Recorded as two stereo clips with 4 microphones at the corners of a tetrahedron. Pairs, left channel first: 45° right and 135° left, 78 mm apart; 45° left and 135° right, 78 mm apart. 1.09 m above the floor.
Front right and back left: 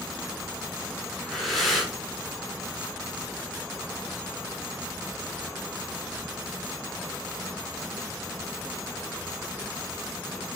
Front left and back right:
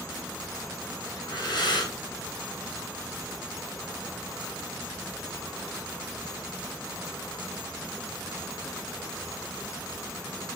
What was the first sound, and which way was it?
Breathing, 45° left.